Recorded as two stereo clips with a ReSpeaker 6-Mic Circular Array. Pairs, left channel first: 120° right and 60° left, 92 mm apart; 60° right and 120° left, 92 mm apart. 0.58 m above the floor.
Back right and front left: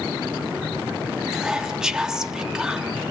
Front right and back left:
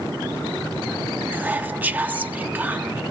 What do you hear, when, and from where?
1.3 s whispering: 130° left, 0.7 m